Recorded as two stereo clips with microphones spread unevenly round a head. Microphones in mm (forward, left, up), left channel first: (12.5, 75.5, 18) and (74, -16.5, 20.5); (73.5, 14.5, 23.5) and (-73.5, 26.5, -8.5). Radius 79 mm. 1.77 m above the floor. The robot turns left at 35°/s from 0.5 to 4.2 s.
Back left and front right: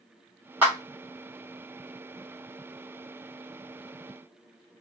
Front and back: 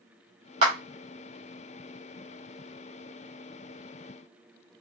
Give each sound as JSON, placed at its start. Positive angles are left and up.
{"t": 0.6, "sound": "a clap", "azimuth_deg": -130, "distance_m": 1.3}